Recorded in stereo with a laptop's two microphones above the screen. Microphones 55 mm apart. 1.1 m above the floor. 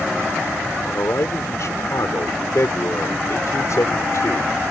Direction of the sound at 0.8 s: 70° left (ahead or behind).